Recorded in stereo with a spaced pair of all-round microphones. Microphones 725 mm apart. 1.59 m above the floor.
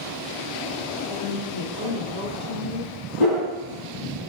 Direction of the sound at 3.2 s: 30° left (ahead or behind).